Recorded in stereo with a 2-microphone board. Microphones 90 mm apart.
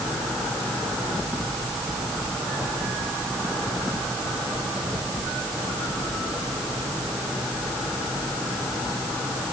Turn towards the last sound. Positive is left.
No sound to turn to.